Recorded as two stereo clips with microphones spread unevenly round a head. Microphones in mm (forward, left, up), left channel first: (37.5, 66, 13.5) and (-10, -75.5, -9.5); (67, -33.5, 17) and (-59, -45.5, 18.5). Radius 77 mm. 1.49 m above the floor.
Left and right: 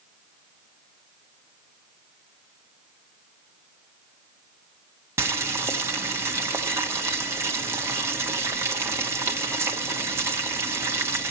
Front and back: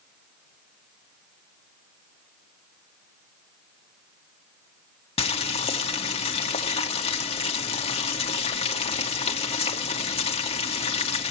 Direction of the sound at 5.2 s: 35° right.